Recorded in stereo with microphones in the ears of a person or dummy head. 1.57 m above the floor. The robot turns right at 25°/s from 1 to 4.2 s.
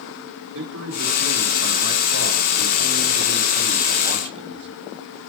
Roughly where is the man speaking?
Right.